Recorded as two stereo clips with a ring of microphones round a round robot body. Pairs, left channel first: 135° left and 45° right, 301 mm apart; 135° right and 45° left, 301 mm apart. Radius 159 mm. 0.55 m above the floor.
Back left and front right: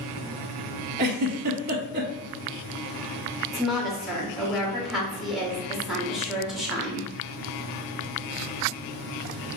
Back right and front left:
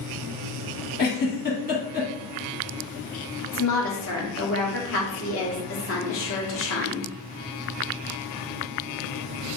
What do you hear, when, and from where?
1.0 s a giggle: 80° right, 0.6 m
3.5 s a woman speaking: 135° right, 1.2 m